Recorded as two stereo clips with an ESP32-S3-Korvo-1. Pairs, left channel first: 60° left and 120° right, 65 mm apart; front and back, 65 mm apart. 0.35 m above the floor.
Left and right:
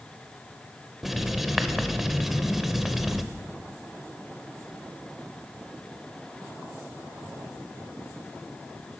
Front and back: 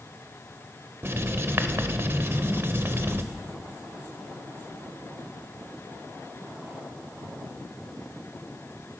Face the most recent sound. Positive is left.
turn(degrees=155)